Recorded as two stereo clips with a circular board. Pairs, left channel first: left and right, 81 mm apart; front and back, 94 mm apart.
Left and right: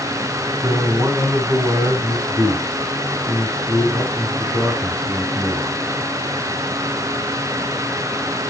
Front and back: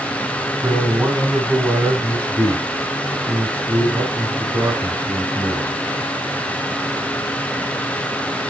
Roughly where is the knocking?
I don't hear knocking.